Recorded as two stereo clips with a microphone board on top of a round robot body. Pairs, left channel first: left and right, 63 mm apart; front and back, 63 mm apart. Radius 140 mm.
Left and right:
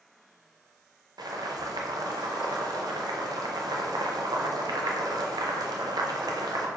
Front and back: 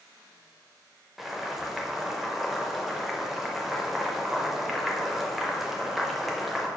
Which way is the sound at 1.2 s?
95° right.